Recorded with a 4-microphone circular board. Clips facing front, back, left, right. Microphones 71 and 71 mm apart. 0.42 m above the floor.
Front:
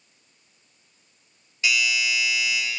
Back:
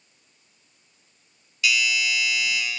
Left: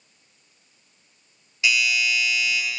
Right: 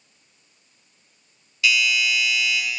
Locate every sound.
1.6 s a doorbell: 40° left, 1.9 m